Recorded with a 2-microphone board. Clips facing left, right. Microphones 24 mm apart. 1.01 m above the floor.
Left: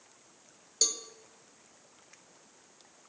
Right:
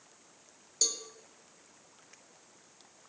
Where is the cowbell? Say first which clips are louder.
Left 2 dB; 15° left (ahead or behind), 1.0 m.